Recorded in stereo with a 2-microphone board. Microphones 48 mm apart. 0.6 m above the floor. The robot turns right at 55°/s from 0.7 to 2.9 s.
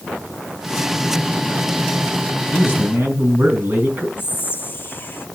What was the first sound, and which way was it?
A man speaking, 25° right (ahead or behind).